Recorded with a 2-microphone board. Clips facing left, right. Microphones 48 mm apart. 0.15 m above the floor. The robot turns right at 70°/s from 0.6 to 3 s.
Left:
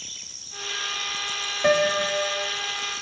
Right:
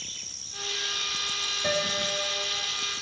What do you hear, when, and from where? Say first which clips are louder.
1.6 s a piano: left 9 dB; 60° left, 0.6 m; by 2.6 s 125° left, 0.6 m